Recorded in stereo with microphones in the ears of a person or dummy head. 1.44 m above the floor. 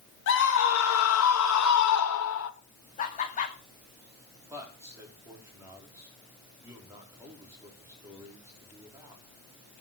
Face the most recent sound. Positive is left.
turn(degrees=-15)  # may be behind; listen again after turning